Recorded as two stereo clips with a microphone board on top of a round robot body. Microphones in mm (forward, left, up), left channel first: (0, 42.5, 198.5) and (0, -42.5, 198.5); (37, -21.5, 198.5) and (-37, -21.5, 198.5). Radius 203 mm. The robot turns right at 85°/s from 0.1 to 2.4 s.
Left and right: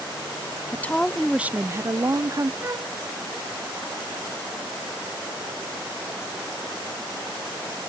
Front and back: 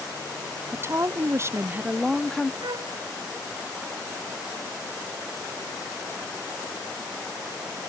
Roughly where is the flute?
Behind right.